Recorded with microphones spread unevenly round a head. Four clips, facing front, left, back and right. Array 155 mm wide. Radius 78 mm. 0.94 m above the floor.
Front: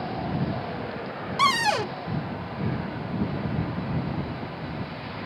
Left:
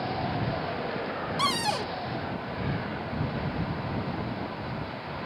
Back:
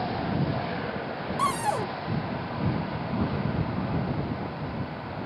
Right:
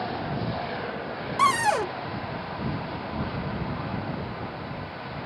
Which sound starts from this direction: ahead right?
A cupboard door, at 1.4 s.